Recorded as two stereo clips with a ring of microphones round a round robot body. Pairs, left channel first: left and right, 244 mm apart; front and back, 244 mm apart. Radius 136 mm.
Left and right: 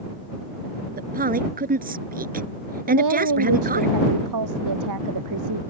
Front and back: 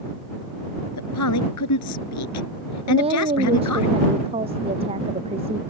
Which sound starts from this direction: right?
A woman speaking, at 2.9 s.